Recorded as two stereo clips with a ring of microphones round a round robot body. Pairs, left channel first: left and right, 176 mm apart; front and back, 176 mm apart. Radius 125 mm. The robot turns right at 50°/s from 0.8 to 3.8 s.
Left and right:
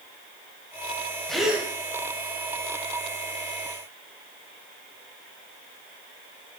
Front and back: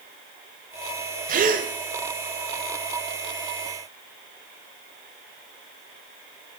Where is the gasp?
175° left, 1.2 m; by 1.7 s 165° right, 1.2 m.